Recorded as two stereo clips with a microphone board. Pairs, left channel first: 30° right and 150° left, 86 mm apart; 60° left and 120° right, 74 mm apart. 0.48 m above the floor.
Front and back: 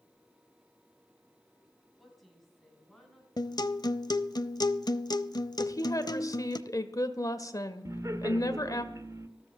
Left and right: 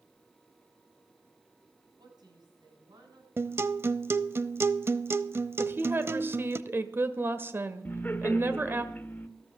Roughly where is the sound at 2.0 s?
Behind right.